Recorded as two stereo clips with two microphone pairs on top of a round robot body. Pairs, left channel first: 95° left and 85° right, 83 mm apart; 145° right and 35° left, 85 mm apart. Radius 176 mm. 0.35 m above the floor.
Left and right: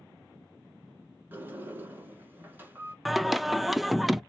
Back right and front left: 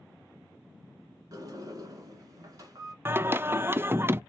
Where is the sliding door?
15° right, 1.0 m.